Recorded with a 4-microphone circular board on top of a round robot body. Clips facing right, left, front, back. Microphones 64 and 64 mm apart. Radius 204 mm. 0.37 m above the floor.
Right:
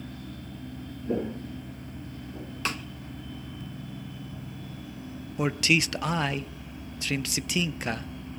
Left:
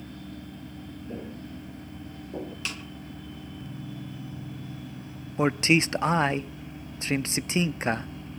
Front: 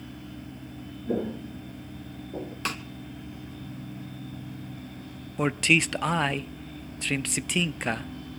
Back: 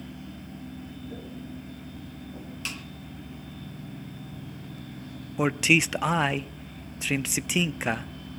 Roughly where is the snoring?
No snoring in this recording.